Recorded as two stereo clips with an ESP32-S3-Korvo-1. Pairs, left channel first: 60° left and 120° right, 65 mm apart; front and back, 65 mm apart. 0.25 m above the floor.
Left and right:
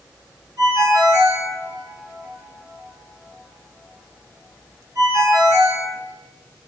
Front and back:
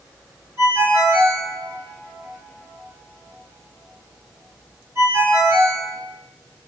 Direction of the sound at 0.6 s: 135° right.